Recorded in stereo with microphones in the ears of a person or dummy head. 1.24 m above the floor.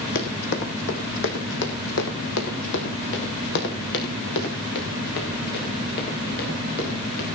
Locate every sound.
0.1 s running footsteps: 45° left (ahead or behind), 2.5 m; by 7.2 s 55° left (ahead or behind), 6.5 m